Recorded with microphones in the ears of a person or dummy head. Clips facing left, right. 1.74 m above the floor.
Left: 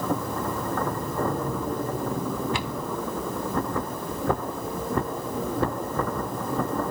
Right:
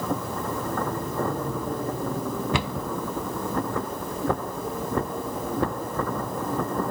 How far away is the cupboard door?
About 0.8 m.